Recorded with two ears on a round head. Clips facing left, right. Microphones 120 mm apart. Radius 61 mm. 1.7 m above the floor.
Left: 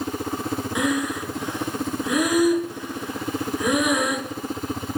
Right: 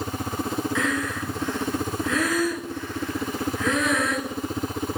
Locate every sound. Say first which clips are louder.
0.8 s breathing: left 3 dB; 15° left (ahead or behind), 0.7 m